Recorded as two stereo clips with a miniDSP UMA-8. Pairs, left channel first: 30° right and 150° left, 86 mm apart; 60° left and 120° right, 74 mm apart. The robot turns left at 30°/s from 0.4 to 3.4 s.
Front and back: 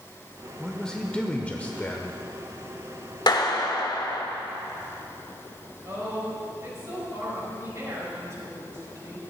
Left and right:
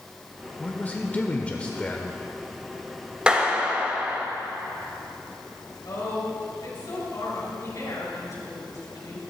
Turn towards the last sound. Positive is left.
turn(degrees=95)